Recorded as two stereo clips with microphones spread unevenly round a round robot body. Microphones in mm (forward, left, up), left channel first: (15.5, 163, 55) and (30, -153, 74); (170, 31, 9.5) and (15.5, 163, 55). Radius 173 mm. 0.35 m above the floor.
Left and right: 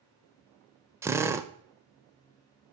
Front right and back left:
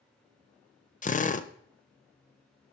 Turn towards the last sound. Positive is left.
turn(degrees=-5)